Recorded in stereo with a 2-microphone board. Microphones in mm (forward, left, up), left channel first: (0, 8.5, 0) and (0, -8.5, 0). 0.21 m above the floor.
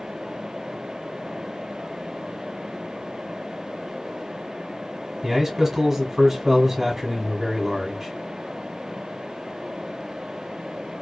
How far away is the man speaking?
About 1.3 m.